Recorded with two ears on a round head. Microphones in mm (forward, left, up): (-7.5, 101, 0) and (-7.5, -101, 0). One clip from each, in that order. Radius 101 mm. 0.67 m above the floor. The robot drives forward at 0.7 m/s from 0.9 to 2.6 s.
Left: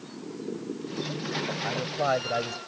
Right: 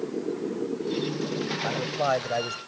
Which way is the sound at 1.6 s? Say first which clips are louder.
Right 2 dB; 10° right (ahead or behind).